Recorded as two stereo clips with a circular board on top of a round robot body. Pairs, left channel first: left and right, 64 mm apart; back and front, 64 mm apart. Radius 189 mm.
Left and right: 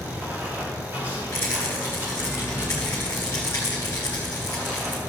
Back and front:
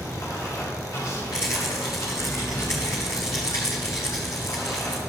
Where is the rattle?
145° left, 0.8 m.